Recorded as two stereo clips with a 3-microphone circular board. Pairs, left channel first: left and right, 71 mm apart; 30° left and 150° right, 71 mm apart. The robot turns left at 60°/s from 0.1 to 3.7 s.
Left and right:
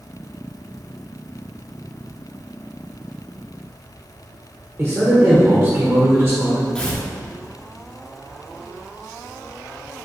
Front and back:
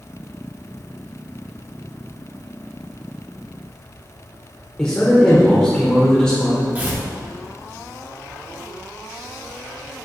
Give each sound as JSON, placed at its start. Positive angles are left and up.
{"t": 4.8, "sound": "a man speaking", "azimuth_deg": -45, "distance_m": 1.3}
{"t": 6.8, "sound": "tearing paper", "azimuth_deg": 160, "distance_m": 1.2}